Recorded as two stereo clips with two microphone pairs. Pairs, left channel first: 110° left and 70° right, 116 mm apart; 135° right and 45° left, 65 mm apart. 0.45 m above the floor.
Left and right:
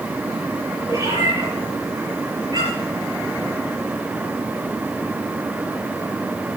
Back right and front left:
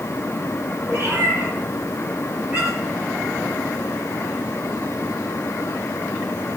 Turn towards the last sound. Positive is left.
turn(degrees=-20)